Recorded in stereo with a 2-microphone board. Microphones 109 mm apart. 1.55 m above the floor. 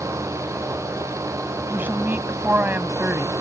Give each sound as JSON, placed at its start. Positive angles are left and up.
{"t": 1.7, "sound": "a woman speaking", "side_deg": -20}